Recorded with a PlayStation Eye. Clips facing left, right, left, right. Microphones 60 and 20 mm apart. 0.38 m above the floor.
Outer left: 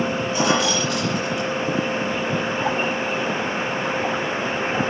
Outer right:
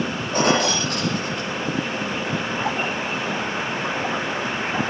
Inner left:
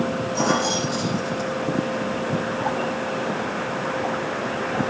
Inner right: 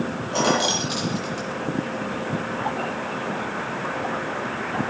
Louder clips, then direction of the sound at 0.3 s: Outer right 2 dB, inner right 2 dB; 55° right (ahead or behind).